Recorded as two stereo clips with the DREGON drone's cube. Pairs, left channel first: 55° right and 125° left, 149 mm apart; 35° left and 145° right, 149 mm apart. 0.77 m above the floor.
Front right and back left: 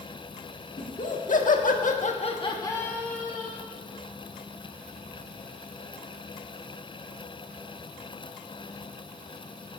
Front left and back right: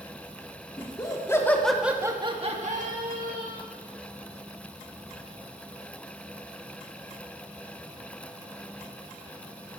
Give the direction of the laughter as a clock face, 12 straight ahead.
1 o'clock.